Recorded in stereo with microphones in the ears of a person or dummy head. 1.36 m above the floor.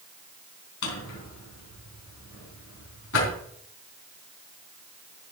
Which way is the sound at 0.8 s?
80° left.